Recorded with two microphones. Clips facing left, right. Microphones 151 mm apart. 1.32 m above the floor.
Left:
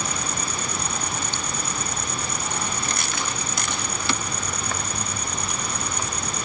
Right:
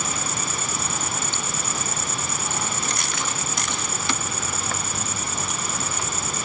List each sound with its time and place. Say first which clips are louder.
0.0 s an insect: even; 5° right (ahead or behind)